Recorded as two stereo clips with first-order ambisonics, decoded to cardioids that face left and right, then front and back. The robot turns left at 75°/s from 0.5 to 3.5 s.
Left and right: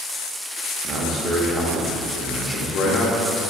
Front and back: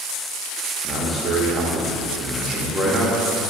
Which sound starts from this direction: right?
A man speaking, at 0.8 s.